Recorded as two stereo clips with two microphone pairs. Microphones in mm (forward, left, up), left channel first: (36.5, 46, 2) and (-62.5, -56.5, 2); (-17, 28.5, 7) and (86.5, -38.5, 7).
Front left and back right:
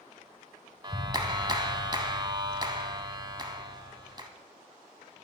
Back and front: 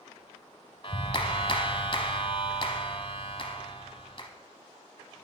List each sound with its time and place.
0.8 s a clap: 175° left, 1.2 m